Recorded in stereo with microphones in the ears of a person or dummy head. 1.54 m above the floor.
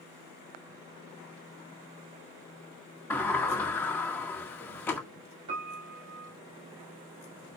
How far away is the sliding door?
About 1.8 m.